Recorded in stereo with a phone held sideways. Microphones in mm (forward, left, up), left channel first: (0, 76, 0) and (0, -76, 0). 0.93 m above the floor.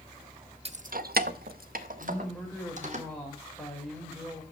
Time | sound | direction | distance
0.7 | keys jangling | 40° right (ahead or behind) | 0.5 m
2.0 | a woman speaking | 5° left (ahead or behind) | 4 m